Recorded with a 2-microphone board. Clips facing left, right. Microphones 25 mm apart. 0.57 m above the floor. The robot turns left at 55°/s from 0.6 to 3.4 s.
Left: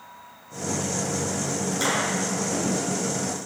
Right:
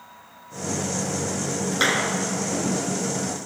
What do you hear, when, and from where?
1.7 s a clap: 40° right (ahead or behind), 5.5 m; by 2.1 s 20° right (ahead or behind), 5.5 m